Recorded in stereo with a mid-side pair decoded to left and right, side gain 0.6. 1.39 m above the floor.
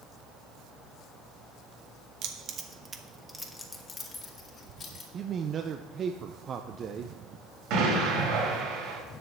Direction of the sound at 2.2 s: 60° right.